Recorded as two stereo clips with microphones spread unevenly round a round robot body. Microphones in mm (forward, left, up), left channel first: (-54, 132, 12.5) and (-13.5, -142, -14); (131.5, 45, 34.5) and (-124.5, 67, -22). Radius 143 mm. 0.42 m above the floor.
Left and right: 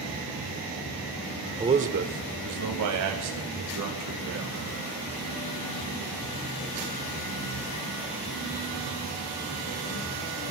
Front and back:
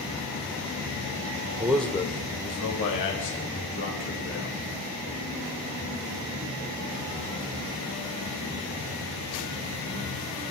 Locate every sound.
1.6 s a man speaking: 140° right, 0.9 m; by 4.6 s 55° right, 4.5 m